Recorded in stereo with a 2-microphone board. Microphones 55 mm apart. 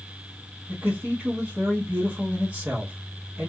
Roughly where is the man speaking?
Right.